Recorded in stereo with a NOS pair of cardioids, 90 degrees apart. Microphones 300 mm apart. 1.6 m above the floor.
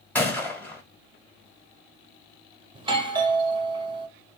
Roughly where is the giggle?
No giggle in this recording.